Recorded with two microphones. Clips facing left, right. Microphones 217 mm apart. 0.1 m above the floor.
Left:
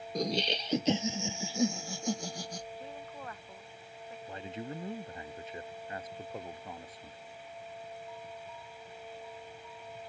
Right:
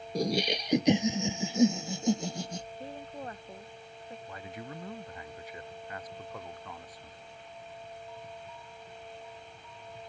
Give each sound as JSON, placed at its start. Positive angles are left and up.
{"t": 0.1, "sound": "laughter", "side_deg": -10}
{"t": 2.8, "sound": "a woman speaking", "side_deg": -35}
{"t": 4.3, "sound": "a man speaking", "side_deg": 25}